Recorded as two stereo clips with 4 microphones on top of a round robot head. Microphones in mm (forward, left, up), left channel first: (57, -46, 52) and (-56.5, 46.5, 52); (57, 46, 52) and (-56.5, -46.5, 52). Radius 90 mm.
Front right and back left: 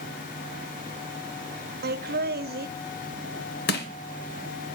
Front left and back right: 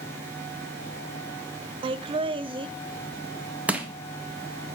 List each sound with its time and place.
1.8 s laughter: 160° left, 0.6 m
3.7 s crushing: 60° right, 1.1 m